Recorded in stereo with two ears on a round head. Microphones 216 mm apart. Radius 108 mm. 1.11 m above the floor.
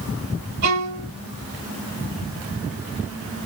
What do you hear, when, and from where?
0.6 s a violin: 80° right, 2.5 m